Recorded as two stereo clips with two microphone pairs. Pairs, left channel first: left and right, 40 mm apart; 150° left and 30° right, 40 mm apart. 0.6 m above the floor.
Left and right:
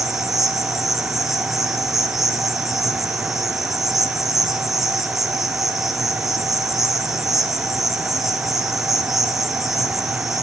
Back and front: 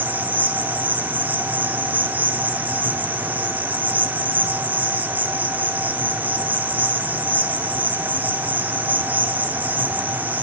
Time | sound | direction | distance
0.0 | an insect | 10° right | 2.5 m